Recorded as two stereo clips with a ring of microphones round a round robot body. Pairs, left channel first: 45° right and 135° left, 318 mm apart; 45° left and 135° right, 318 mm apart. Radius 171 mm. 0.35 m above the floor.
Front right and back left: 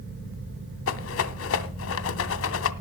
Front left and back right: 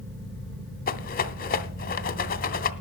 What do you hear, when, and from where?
0.9 s a rattle: 10° right, 0.9 m